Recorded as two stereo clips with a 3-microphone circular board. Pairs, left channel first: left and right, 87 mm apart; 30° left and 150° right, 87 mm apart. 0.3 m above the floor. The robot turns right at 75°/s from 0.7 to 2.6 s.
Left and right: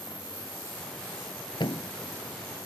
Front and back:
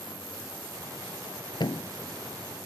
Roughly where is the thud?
Ahead left.